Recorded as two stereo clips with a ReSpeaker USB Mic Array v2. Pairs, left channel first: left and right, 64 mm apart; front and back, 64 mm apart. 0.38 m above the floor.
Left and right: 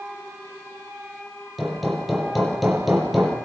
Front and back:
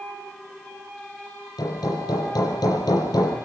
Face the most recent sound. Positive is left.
turn(degrees=0)